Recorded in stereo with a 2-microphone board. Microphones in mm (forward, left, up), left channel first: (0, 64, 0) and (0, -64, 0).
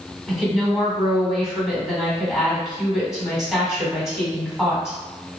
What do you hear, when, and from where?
0.3 s a woman speaking: centre (ahead or behind), 1.7 m